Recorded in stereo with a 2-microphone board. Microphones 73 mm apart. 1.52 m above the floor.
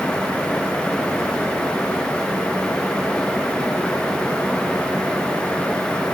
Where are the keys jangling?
I don't hear keys jangling.